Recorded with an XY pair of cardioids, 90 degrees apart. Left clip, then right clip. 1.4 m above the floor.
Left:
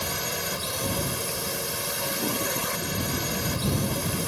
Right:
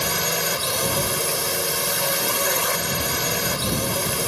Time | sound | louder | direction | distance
0.0 | a drone | right 7 dB | 50° right | ?